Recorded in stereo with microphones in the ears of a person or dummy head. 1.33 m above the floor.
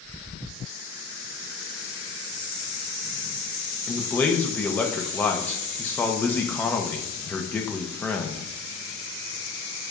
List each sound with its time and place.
3.9 s a man speaking: 10° left (ahead or behind), 0.9 m